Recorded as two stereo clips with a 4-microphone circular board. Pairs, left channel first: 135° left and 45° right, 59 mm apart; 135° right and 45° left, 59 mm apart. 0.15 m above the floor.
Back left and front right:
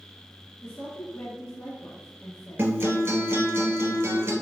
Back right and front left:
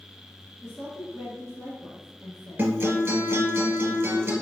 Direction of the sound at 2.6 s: 5° right.